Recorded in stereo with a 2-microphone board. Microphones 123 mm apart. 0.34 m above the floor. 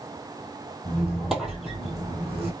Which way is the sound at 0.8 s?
Centre (ahead or behind).